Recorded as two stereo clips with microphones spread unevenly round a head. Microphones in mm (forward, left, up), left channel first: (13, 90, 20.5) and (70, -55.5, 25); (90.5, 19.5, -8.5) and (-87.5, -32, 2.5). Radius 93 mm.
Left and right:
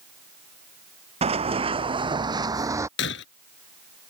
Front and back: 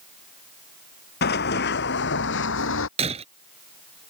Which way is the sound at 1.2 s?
20° right.